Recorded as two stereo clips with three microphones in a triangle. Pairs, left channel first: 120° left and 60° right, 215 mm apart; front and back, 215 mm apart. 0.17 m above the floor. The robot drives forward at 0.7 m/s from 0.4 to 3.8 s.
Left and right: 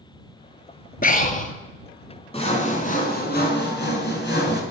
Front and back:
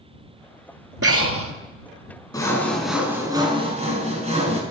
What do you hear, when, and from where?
1.0 s breathing: 175° left, 0.6 m
2.3 s sawing: 70° left, 1.3 m; by 4.6 s 125° left, 1.4 m